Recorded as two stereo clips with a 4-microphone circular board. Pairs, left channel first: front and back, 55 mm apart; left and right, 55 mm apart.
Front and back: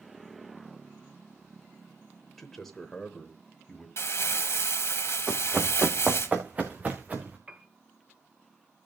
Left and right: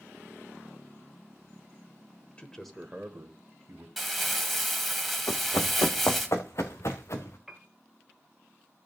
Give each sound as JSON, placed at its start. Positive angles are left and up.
{"t": 2.4, "sound": "a man speaking", "azimuth_deg": 85, "distance_m": 1.1}
{"t": 4.0, "sound": "crumpling", "azimuth_deg": 0, "distance_m": 1.5}
{"t": 5.3, "sound": "running footsteps", "azimuth_deg": 100, "distance_m": 1.1}
{"t": 7.5, "sound": "a piano", "azimuth_deg": -150, "distance_m": 0.7}